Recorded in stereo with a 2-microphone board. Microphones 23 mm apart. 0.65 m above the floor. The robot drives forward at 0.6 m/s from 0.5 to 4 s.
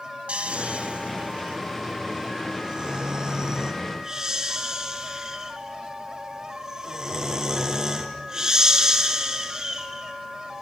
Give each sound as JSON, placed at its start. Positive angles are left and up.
{"t": 0.3, "sound": "snoring", "side_deg": -70, "distance_m": 1.1}